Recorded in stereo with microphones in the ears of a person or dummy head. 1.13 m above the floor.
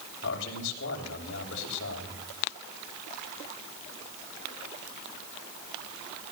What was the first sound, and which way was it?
A man speaking, 70° left (ahead or behind).